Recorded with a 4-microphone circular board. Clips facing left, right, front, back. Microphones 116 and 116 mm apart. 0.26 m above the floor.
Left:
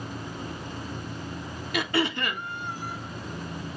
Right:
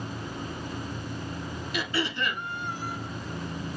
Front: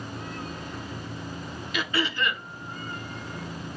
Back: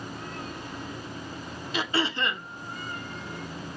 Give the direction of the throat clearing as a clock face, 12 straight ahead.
8 o'clock.